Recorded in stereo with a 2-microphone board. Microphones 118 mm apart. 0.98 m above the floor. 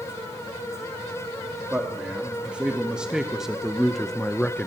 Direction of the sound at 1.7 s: 10° right (ahead or behind).